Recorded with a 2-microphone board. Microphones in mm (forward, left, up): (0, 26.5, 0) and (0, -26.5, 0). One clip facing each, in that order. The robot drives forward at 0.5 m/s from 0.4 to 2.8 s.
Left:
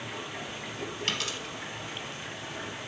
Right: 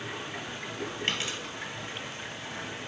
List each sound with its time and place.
0.0 s running water: 60° right (ahead or behind), 3.5 m; by 2.9 s 50° right (ahead or behind), 4.5 m
1.1 s a dropped coin: 30° right (ahead or behind), 2.5 m